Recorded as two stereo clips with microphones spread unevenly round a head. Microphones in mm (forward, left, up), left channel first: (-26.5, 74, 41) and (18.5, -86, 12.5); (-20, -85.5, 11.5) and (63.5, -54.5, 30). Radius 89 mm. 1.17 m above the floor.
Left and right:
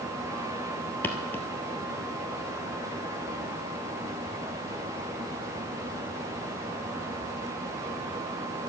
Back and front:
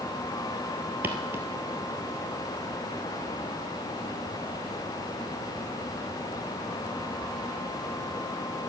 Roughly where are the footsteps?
Ahead left.